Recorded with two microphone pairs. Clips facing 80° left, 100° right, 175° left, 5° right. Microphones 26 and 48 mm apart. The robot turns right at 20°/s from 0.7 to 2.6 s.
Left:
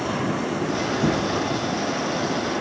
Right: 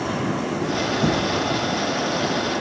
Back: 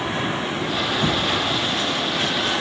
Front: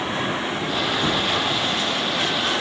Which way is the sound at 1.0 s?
115° right.